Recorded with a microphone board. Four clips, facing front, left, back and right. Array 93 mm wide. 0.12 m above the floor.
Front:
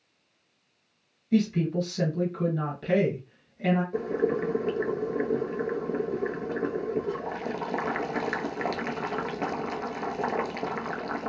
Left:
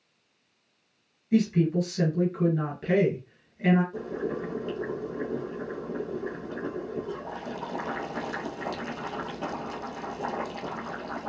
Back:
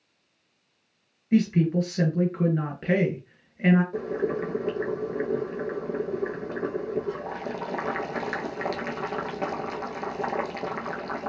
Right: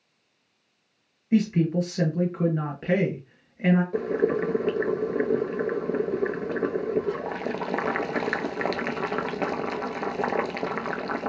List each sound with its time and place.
1.3 s a woman speaking: 145° right, 1.6 m
3.9 s boiling: 90° right, 0.5 m